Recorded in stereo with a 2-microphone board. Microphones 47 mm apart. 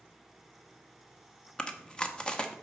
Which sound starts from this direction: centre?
Chewing, at 1.6 s.